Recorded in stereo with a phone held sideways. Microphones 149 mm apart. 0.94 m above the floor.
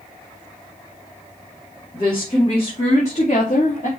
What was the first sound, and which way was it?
A woman speaking, 30° left (ahead or behind).